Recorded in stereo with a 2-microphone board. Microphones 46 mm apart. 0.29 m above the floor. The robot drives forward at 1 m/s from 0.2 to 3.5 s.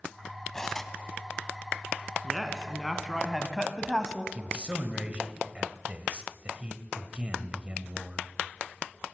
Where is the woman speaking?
Centre (ahead or behind), 2.5 m.